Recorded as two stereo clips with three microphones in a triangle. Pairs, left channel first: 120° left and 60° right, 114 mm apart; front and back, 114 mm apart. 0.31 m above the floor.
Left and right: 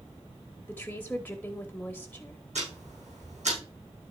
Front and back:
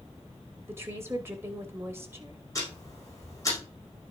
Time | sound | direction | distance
0.7 | a woman speaking | 160° left | 1.1 m
2.5 | ticking | 60° right | 5 m